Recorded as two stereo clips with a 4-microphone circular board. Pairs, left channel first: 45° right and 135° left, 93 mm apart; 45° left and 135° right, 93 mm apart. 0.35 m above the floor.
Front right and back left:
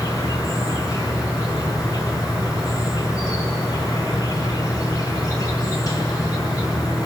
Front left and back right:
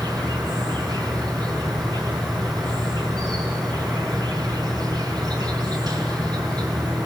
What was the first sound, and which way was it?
An insect, 95° right.